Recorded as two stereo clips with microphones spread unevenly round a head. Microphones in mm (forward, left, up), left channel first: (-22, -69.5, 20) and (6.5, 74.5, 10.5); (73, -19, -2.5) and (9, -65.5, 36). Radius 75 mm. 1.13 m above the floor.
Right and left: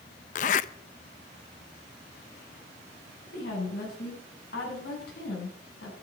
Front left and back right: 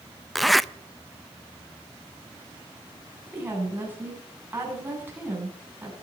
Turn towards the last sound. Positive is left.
turn(degrees=-80)